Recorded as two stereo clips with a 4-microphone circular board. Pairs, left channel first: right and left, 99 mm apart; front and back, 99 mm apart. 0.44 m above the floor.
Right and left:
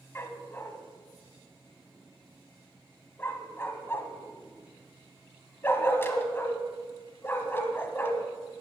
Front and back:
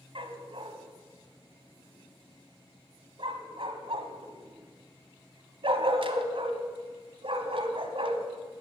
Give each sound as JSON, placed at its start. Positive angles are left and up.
{"t": 0.1, "sound": "a dog barking", "azimuth_deg": -155, "distance_m": 1.2}